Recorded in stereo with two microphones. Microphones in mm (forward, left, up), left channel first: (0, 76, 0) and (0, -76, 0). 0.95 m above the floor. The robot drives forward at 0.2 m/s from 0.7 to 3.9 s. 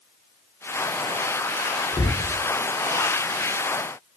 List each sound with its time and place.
1.9 s a cupboard door: 35° left (ahead or behind), 0.6 m